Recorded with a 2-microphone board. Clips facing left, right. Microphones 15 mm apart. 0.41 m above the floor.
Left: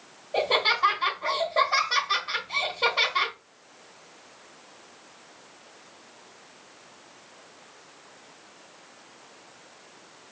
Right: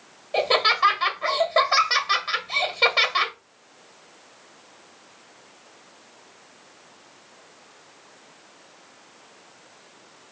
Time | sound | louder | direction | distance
0.3 | laughter | right 3 dB | 50° right (ahead or behind) | 1.9 m